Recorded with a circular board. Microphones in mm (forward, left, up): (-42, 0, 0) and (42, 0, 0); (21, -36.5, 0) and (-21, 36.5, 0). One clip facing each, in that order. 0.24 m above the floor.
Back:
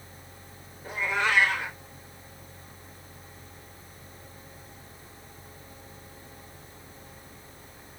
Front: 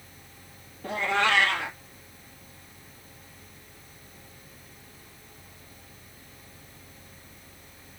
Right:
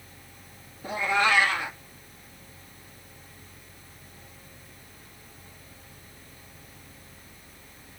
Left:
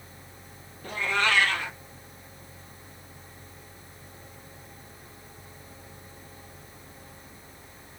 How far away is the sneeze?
No sneeze in this recording.